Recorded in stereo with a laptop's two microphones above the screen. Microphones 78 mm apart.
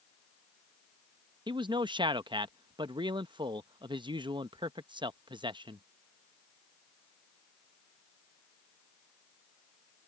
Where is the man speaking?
75° right (ahead or behind).